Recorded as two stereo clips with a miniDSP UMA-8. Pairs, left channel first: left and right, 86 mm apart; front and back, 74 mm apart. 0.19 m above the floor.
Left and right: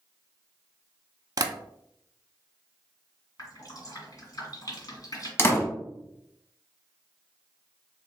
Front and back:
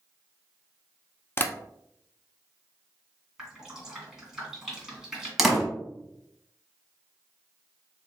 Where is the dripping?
100° left, 2.0 m.